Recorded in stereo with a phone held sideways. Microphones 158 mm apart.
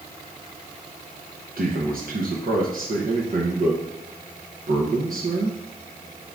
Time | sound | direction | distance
1.6 | a man speaking | 65° right (ahead or behind) | 0.8 m